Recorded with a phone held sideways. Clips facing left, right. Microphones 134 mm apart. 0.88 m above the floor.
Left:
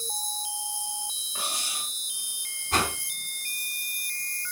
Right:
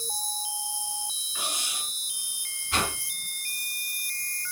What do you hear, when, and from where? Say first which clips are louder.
0.0 s an insect: even; 20° left (ahead or behind), 7.5 m
1.4 s cutlery clinking: left 1 dB; 35° left (ahead or behind), 6.5 m
2.7 s a whoosh: left 2 dB; 40° left (ahead or behind), 3.5 m